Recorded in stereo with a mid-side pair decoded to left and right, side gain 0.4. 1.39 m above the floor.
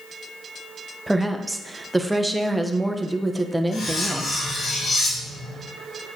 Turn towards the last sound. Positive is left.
turn(degrees=60)